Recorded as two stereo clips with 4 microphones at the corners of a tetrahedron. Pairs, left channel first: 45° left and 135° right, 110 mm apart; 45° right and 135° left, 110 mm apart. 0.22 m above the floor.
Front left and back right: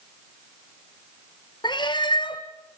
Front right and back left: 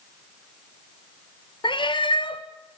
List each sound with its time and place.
1.6 s a cat meowing: straight ahead, 1.1 m